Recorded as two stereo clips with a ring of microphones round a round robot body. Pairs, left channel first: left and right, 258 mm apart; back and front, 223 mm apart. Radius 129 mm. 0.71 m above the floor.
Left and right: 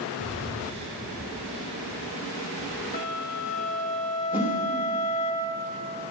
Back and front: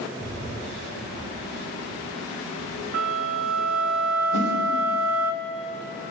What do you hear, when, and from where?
0.2 s breathing: 25° right, 3 m
2.9 s a flute: 25° left, 1.3 m
4.3 s a whoosh: 175° right, 3 m